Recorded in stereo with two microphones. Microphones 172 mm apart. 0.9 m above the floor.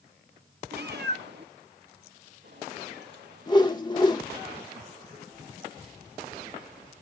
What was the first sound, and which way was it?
A cat meowing, 70° right (ahead or behind).